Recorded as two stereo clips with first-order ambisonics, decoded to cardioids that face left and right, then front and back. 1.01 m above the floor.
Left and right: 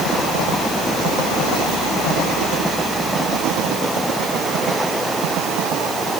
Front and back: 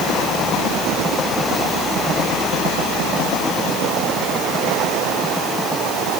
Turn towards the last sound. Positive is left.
No sound to turn to.